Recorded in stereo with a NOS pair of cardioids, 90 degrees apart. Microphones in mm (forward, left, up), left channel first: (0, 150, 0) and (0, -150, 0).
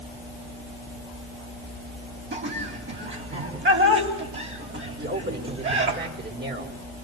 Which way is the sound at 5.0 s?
35° right.